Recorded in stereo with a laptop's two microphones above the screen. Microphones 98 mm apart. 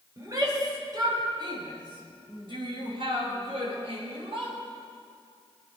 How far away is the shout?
About 3.5 m.